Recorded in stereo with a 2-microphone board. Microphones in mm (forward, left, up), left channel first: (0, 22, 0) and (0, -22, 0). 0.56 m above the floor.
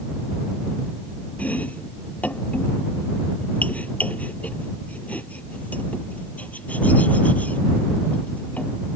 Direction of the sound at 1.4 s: 35° left (ahead or behind).